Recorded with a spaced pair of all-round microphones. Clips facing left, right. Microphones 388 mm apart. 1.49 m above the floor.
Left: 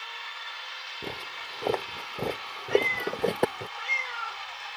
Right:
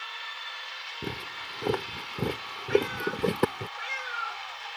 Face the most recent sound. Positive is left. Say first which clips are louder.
# even
turn(degrees=10)  # may be behind; listen again after turning